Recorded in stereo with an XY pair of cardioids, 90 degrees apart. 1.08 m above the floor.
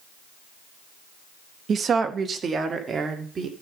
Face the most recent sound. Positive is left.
turn(degrees=-45)